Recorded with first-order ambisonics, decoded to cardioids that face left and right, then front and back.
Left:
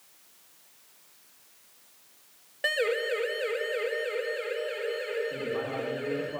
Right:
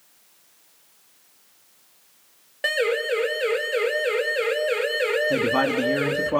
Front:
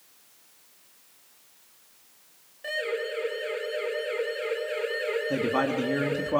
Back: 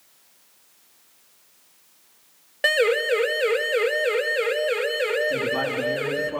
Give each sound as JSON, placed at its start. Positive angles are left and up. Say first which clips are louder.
{"t": 2.6, "sound": "a siren", "louder": "right 5 dB, back 11 dB", "azimuth_deg": -170, "distance_m": 2.5}
{"t": 5.3, "sound": "a man speaking", "louder": "right 11 dB, back 2 dB", "azimuth_deg": -65, "distance_m": 3.0}